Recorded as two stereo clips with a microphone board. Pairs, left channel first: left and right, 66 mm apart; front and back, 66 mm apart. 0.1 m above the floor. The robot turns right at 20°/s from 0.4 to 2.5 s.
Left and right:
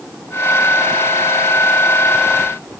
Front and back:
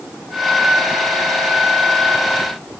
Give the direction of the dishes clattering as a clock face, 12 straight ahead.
I don't hear dishes clattering.